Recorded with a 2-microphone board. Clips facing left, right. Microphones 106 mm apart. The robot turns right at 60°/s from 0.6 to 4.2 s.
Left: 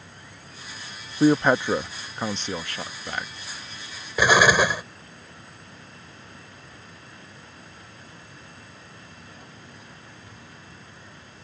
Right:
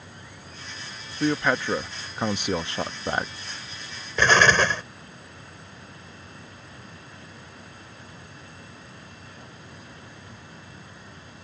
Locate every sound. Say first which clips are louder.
1.2 s a man speaking: left 5 dB; 30° left (ahead or behind); by 3.3 s 40° right (ahead or behind)
4.2 s an explosion: left 1 dB; 10° left (ahead or behind)